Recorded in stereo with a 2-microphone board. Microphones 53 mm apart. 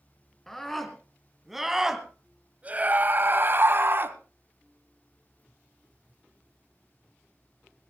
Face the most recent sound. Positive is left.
turn(degrees=-45)  # may be behind; listen again after turning